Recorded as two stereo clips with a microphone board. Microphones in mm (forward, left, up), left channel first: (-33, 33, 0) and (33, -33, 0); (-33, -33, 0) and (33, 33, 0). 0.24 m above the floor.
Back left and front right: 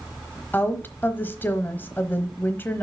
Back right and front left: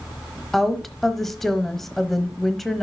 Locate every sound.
0.5 s a woman speaking: 140° left, 1.0 m